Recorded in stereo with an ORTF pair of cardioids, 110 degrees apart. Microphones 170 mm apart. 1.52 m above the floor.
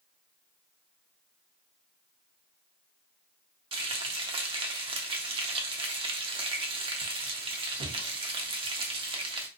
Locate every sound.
3.7 s frying: 30° right, 0.7 m